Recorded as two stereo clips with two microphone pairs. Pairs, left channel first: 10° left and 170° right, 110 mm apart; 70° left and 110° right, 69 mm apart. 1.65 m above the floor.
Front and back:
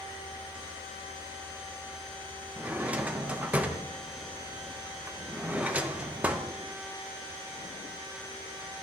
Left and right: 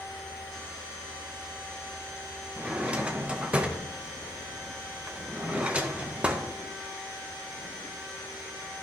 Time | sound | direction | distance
2.6 | a drawer | 120° right | 0.8 m